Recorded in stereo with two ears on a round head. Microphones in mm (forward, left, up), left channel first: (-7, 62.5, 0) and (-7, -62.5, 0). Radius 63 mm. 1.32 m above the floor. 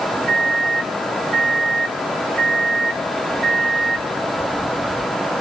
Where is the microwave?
80° right, 1.7 m.